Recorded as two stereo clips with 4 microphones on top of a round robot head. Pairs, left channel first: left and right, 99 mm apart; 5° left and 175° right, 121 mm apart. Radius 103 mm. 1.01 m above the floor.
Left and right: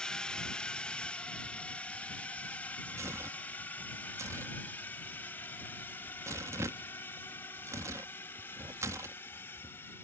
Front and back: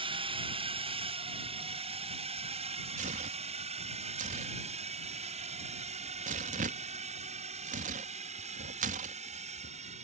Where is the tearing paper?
155° right.